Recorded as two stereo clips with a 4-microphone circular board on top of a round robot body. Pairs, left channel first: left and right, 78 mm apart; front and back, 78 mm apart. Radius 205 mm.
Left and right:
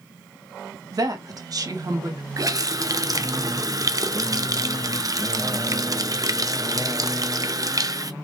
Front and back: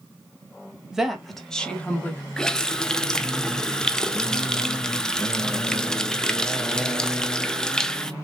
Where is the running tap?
80° right, 0.8 m.